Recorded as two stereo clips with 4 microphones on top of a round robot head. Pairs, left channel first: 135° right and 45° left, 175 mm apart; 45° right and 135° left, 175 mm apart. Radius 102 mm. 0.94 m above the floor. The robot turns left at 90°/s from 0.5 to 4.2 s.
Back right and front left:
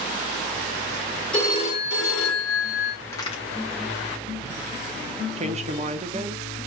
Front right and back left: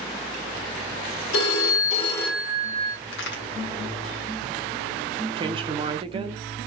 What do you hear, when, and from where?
1.3 s a phone ringing: 50° right, 1.4 m; by 3.0 s 165° left, 1.4 m
3.1 s a crack: 50° right, 1.6 m; by 3.4 s 80° right, 1.6 m
5.4 s a woman speaking: 80° left, 0.9 m